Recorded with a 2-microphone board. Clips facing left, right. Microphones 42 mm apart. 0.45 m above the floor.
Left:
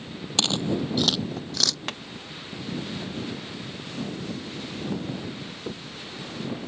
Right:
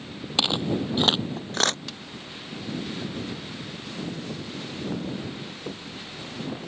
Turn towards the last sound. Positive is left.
turn(degrees=55)  # may be behind; listen again after turning